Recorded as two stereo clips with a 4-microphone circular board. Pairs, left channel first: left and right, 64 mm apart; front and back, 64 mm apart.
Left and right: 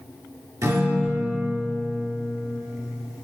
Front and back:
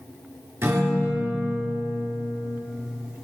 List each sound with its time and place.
0.6 s a guitar: 125° right, 3 m